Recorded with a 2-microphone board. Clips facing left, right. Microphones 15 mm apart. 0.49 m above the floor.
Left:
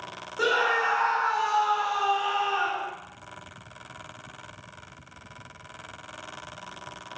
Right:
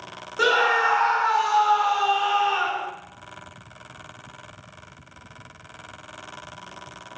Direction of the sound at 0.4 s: 30° right (ahead or behind).